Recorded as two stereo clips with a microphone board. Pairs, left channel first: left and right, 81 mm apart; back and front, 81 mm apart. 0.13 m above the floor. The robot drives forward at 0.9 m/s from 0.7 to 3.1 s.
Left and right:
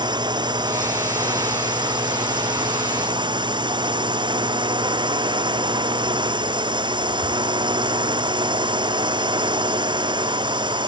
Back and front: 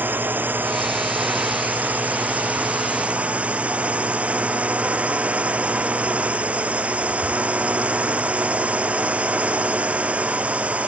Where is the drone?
65° right; by 10.9 s 75° right.